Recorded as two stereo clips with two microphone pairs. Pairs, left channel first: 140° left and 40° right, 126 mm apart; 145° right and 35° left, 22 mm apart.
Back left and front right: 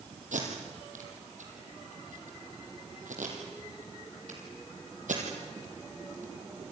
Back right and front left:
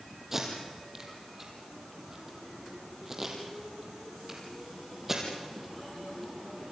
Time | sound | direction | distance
0.3 | tape being pulled | 35° right | 4.5 m